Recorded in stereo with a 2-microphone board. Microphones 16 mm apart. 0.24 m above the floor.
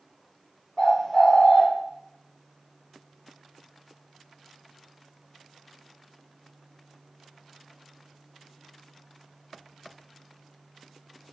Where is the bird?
30° left (ahead or behind), 0.7 m.